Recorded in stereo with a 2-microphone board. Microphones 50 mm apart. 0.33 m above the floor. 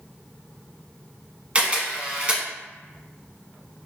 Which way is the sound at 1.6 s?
25° right (ahead or behind).